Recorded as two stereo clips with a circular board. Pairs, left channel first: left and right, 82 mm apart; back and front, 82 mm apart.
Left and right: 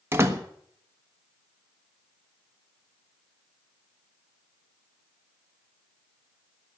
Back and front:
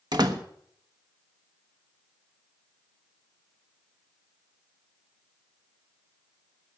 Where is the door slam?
30° right, 1.2 m.